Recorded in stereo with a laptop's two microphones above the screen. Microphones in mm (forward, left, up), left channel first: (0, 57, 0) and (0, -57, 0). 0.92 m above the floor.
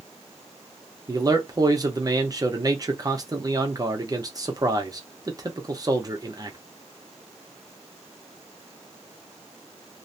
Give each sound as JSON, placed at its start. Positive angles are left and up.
{"t": 1.1, "sound": "a man speaking", "side_deg": -30, "distance_m": 0.7}